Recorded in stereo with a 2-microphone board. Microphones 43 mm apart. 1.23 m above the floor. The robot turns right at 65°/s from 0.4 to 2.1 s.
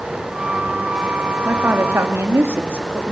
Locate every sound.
1.4 s a woman speaking: 135° right, 2 m; by 3.1 s 90° right, 2 m